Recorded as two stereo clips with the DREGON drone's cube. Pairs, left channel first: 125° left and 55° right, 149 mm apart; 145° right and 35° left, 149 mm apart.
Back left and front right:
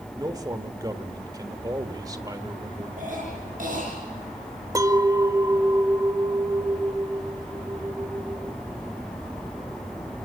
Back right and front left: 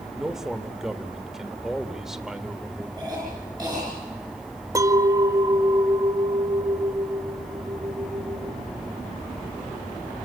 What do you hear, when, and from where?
0.1 s a man speaking: 45° right, 1.4 m
3.0 s a cough: 30° right, 7 m
4.8 s a clink: 10° right, 0.8 m